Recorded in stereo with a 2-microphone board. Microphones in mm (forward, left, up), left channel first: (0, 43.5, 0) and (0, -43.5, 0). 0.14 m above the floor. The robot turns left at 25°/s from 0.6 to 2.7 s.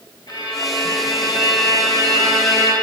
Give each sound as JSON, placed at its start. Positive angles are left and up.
{"t": 0.3, "sound": "a violin", "azimuth_deg": 130, "distance_m": 2.5}